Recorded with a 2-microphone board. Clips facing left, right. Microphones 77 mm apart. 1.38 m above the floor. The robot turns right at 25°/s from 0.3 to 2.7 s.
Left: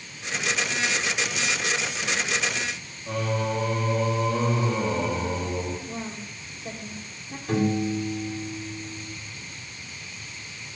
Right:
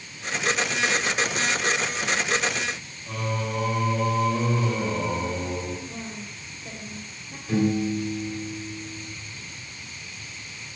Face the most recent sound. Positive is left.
turn(degrees=65)  # may be behind; listen again after turning